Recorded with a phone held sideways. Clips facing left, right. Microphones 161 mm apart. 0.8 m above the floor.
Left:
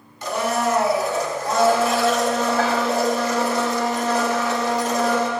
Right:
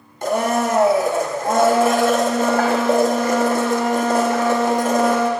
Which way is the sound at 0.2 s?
50° right (ahead or behind).